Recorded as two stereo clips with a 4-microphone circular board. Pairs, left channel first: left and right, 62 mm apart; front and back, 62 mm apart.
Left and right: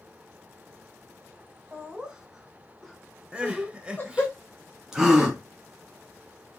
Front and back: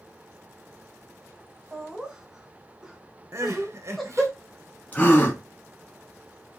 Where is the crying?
160° right, 0.8 m.